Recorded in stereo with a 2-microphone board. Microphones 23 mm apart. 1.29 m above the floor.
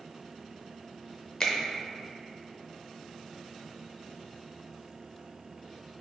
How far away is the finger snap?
About 0.5 m.